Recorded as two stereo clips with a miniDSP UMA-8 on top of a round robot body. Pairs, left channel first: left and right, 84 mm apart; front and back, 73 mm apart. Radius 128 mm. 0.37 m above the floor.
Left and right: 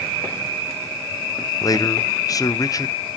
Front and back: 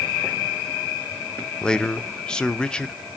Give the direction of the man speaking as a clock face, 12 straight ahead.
10 o'clock.